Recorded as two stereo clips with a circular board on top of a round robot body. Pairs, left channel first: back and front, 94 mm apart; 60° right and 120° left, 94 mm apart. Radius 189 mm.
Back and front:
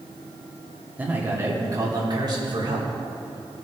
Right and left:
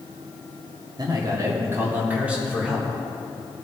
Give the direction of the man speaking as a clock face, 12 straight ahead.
10 o'clock.